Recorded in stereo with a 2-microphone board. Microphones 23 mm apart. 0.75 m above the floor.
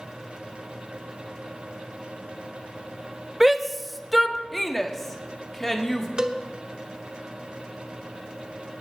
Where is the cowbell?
30° right (ahead or behind), 0.9 m.